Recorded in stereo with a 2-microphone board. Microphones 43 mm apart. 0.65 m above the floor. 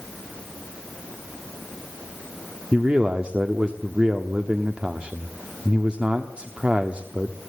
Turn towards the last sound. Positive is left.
turn(degrees=-20)  # may be behind; listen again after turning